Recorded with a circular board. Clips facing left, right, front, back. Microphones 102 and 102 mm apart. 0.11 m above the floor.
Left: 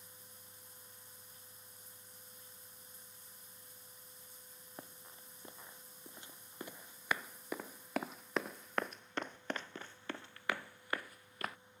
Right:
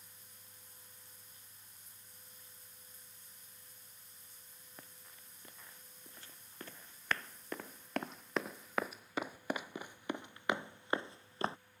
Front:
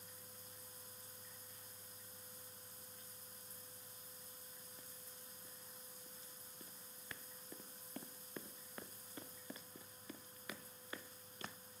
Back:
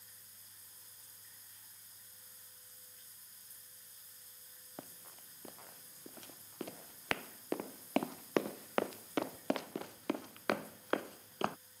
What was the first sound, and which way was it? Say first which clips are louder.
Running footsteps: left 6 dB, back 7 dB; 155° left.